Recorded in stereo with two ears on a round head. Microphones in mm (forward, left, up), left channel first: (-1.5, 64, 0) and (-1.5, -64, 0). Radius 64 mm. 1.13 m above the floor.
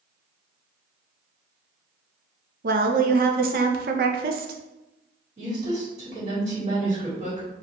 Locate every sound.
2.6 s a woman speaking: 65° right (ahead or behind), 0.6 m
5.4 s a woman speaking: 45° right (ahead or behind), 2.0 m